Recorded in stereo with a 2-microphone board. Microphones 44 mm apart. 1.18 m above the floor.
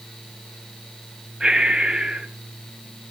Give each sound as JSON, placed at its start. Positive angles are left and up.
{"t": 1.4, "sound": "breathing", "side_deg": -15, "distance_m": 5.5}